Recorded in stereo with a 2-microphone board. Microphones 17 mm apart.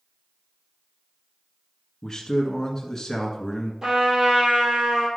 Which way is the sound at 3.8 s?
35° right (ahead or behind).